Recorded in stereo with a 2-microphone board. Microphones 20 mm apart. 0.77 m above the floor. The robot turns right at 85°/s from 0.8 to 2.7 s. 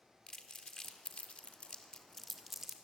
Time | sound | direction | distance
0.3 | crumpling | 40° left (ahead or behind) | 1.8 m